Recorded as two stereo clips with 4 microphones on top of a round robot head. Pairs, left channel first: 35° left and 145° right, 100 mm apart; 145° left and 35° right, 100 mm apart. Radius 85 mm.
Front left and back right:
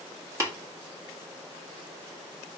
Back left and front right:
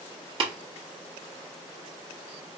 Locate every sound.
0.4 s tapping: 80° right, 1.2 m